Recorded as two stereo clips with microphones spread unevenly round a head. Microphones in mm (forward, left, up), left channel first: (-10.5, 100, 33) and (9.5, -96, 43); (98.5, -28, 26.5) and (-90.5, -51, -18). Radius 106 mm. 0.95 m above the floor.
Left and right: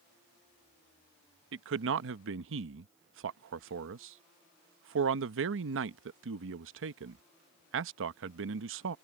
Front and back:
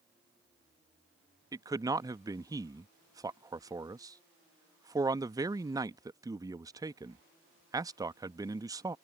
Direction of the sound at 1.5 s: 105° right.